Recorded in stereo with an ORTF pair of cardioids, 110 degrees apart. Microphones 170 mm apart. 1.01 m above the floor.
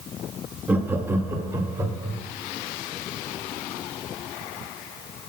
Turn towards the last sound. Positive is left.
turn(degrees=-20)